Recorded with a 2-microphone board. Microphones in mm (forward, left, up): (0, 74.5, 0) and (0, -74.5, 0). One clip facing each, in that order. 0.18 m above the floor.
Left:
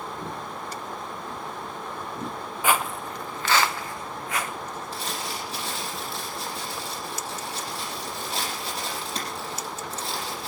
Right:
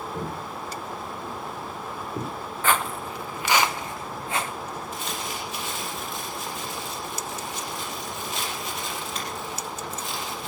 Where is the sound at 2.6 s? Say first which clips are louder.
Even; 10° left (ahead or behind), 0.9 m; by 4.5 s 30° right (ahead or behind), 1.9 m.